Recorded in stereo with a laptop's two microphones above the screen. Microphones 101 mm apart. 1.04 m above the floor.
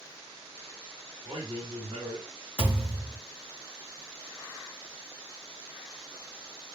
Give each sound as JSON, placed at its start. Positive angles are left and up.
{"t": 1.2, "sound": "a man speaking", "side_deg": -35, "distance_m": 1.9}
{"t": 2.6, "sound": "a thud", "side_deg": -25, "distance_m": 3.0}